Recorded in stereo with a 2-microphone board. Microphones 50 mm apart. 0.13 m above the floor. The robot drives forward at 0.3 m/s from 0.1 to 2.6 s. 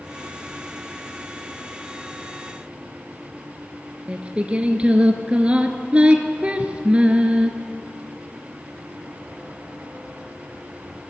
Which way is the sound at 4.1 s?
25° right (ahead or behind).